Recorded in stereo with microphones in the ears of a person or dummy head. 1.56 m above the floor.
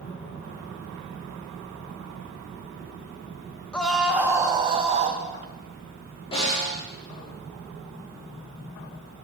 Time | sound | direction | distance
3.7 | a scream | 10° left (ahead or behind) | 1.7 m
6.3 | a snare drum | 35° left (ahead or behind) | 7 m